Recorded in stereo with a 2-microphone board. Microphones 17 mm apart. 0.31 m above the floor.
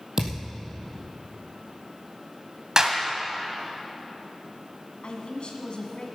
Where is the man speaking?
65° left (ahead or behind), 2.5 m.